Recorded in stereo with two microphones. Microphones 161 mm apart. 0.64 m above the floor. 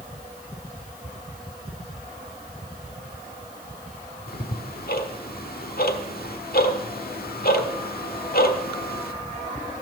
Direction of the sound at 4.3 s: 65° left (ahead or behind).